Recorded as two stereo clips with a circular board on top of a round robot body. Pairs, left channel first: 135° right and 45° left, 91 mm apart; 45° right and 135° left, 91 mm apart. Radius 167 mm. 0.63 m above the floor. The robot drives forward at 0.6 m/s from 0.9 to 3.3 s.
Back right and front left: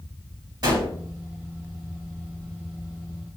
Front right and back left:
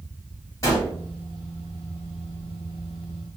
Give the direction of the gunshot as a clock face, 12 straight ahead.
12 o'clock.